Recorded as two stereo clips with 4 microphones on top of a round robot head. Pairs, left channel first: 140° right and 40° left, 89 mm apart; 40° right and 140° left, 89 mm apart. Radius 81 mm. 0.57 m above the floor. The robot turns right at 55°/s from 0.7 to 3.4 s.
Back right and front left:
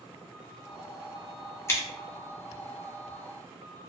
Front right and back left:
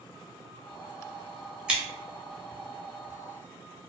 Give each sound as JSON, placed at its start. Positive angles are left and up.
{"t": 1.7, "sound": "scissors", "azimuth_deg": -155, "distance_m": 1.0}